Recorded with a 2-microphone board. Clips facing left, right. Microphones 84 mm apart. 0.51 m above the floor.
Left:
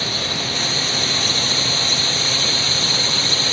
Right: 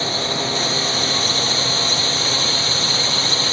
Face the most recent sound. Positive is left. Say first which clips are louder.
# right 3 dB
turn(degrees=-30)  # may be behind; listen again after turning